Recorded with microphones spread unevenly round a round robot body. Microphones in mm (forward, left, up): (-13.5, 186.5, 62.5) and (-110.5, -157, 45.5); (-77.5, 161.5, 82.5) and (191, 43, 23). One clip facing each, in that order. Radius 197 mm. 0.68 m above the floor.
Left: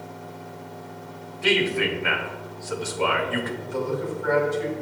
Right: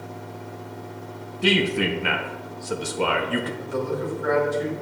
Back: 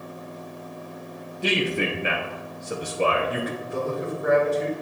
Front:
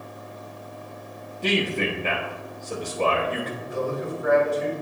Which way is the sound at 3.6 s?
135° right.